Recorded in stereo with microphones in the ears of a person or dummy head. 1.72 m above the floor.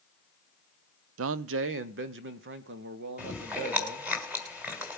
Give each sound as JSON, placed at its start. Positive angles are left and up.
{"t": 1.2, "sound": "a man speaking", "side_deg": -70, "distance_m": 0.6}
{"t": 3.2, "sound": "chewing", "side_deg": -5, "distance_m": 2.5}